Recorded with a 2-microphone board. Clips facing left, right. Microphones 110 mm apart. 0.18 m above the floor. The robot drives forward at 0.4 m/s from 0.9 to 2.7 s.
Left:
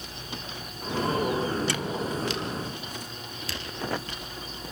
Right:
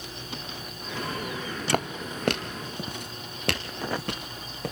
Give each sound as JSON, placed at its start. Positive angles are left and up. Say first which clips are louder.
{"t": 1.7, "sound": "footsteps", "louder": "right 1 dB", "side_deg": -55, "distance_m": 1.1}